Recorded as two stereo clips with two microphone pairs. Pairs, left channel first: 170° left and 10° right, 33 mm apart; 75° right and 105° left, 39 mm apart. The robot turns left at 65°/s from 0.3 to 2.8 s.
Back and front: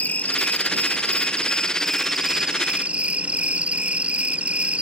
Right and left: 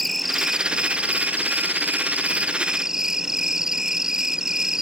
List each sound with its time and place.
0.0 s an insect: 165° right; by 4.8 s 35° left